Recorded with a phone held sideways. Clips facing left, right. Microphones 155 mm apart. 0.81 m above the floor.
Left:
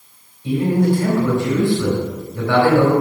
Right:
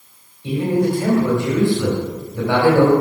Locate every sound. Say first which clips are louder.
0.4 s a man speaking: left 1 dB; 20° right (ahead or behind), 3.5 m